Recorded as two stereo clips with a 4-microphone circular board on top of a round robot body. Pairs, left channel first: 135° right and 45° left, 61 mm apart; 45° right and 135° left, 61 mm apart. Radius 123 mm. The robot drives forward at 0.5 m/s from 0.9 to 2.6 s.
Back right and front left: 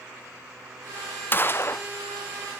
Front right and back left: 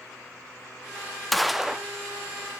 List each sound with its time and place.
1.3 s a gunshot: 130° right, 1.1 m; by 1.9 s 145° right, 1.2 m